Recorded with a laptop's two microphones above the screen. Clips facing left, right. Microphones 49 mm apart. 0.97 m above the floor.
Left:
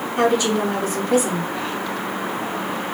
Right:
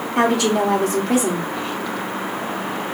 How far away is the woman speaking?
About 2 m.